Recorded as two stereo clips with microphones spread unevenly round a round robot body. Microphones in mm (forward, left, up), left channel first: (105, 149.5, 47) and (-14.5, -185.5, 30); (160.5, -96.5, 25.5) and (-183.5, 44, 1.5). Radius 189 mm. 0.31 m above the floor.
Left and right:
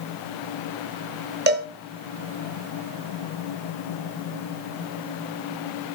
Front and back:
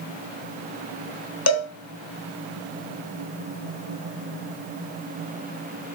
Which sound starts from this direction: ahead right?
A cowbell, at 1.5 s.